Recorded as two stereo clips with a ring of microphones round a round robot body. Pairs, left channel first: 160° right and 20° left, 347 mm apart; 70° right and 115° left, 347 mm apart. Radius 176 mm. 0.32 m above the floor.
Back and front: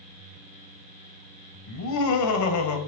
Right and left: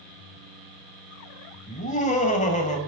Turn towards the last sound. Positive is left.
turn(degrees=-135)